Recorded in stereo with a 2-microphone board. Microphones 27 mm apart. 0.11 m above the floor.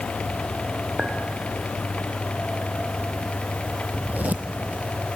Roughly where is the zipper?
Right.